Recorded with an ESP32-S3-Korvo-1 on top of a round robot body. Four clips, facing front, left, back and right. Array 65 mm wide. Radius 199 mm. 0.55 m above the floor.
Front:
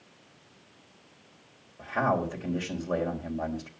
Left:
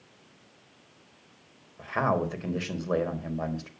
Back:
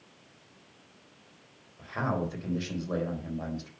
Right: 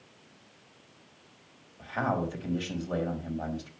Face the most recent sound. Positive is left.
turn(degrees=75)